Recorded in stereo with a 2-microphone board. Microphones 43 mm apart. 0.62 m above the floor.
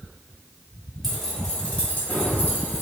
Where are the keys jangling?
Centre (ahead or behind), 0.9 m; by 2.8 s 60° left (ahead or behind), 1.1 m.